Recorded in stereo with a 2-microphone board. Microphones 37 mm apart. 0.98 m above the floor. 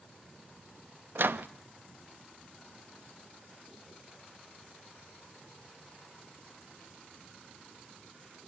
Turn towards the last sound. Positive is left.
turn(degrees=-65)  # may be behind; listen again after turning